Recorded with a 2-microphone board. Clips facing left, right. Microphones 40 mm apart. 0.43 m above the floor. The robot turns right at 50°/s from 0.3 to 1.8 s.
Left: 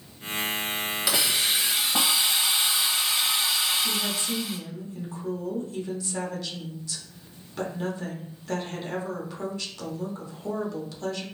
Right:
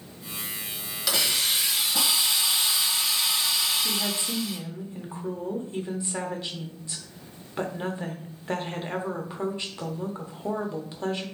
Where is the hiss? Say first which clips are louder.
Right 1 dB; 10° left, 1.0 m; by 4.6 s 45° left, 1.0 m.